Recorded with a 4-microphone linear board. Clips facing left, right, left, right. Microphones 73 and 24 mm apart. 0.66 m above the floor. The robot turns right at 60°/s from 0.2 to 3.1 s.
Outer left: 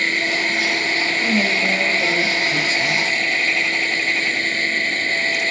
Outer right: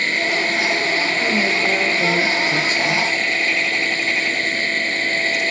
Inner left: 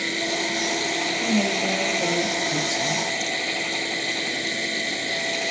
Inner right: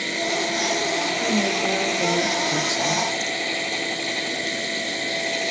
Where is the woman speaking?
160° right, 2.0 m; by 3.2 s 50° right, 2.0 m.